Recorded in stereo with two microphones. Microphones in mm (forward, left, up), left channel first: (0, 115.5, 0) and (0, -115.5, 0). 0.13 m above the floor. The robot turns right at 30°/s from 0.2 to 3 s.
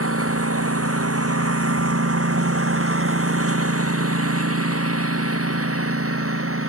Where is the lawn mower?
80° right; by 6.7 s 70° right (ahead or behind).